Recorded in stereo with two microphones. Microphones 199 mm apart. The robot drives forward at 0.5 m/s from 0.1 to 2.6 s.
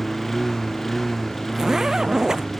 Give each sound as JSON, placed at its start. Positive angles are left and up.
{"t": 0.0, "sound": "a lawn mower", "side_deg": 0}
{"t": 1.5, "sound": "a zipper", "side_deg": -5}